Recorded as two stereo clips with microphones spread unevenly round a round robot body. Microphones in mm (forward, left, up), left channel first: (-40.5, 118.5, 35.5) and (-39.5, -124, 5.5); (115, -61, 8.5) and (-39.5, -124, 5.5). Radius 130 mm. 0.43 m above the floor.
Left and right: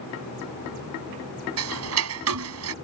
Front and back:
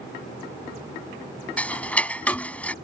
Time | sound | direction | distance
1.6 | ticking | 60° right | ?